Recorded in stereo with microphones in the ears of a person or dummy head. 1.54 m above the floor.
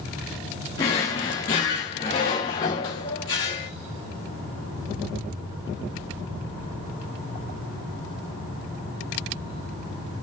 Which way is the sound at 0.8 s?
20° left (ahead or behind).